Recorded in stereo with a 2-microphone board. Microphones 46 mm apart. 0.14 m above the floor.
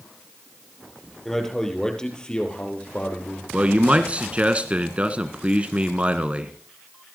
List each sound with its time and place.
1.2 s a man speaking: 10° left (ahead or behind), 3.5 m; by 3.4 s 35° left (ahead or behind), 3.5 m
3.5 s a man speaking: 30° right (ahead or behind), 1.3 m